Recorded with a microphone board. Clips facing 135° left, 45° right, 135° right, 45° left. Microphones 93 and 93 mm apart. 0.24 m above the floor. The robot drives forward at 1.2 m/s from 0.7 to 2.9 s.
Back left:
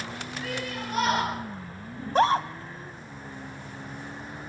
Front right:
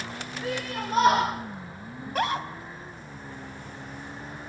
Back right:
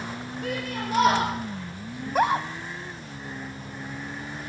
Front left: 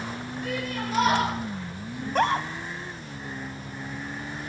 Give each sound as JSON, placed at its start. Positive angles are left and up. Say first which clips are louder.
{"t": 0.4, "sound": "a shout", "louder": "front right 3 dB, even", "azimuth_deg": -100, "distance_m": 6.0}
{"t": 2.0, "sound": "a scream", "louder": "back left 6 dB, back right 1 dB", "azimuth_deg": 130, "distance_m": 1.0}